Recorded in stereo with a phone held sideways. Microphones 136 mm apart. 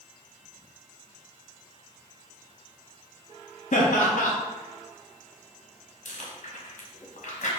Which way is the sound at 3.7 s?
65° left (ahead or behind).